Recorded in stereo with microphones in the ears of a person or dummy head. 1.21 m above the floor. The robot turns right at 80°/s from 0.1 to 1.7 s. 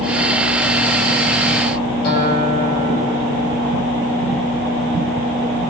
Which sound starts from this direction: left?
A guitar, at 2.0 s.